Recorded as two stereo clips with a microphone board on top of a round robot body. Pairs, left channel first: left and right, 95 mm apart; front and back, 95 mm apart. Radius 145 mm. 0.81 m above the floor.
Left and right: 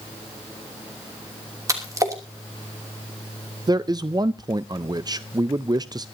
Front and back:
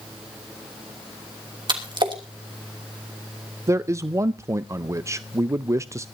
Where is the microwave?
No microwave in this recording.